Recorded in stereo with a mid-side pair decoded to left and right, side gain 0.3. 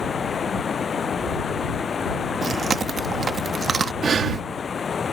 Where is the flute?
No flute in this recording.